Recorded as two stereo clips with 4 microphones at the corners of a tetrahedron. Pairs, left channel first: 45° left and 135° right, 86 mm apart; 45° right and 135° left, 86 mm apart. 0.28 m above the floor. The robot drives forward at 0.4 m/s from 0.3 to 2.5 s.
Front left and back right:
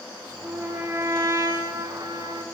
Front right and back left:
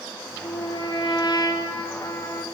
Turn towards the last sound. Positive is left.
turn(degrees=-100)